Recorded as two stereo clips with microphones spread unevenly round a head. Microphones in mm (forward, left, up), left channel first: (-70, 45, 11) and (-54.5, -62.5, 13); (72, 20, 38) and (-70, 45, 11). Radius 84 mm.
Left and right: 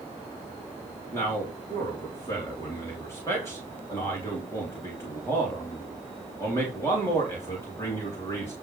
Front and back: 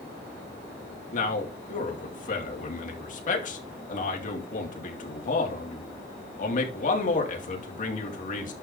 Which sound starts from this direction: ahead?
A man speaking, at 1.1 s.